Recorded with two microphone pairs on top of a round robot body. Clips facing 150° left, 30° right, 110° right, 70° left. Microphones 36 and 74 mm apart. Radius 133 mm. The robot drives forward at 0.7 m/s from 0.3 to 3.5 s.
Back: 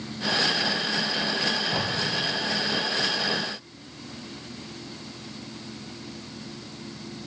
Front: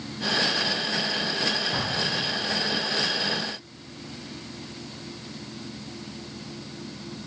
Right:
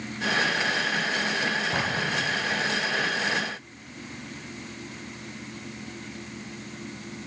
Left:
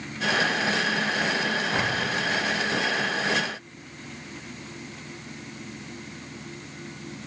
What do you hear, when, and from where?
1.7 s an explosion: 140° right, 3.5 m; by 2.8 s 145° right, 4.5 m